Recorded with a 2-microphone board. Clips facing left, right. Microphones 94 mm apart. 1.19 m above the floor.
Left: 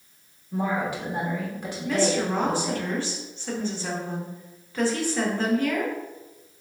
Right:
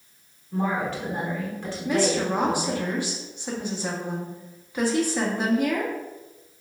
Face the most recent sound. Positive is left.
turn(degrees=-15)  # may be behind; listen again after turning